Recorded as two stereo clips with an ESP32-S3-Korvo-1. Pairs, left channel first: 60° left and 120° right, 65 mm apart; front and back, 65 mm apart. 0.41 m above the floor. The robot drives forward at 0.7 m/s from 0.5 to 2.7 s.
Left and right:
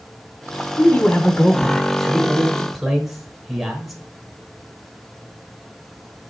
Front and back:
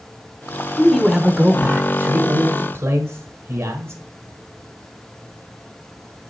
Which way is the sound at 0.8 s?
70° left.